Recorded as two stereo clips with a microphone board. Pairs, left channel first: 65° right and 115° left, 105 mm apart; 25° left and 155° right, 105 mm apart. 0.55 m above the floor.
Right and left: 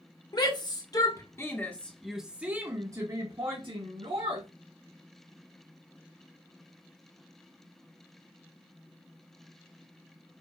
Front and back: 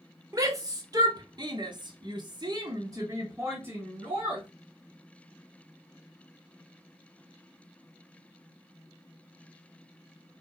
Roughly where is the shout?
Right.